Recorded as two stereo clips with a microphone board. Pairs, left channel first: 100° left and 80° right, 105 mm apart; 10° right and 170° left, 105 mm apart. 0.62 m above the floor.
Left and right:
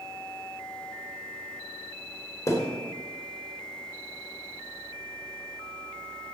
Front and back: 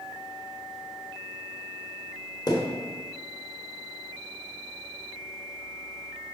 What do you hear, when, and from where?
2.5 s a thud: 35° left, 0.9 m